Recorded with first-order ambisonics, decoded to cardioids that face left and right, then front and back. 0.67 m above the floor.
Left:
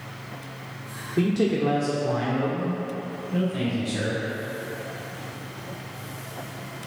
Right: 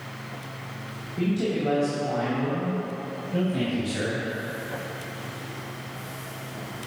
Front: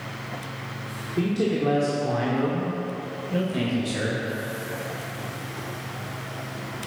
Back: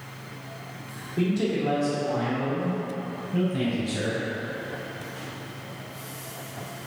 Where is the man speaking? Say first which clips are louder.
Left 4 dB, front 1 dB; 75° left, 1.5 m; by 4.3 s 5° right, 3 m.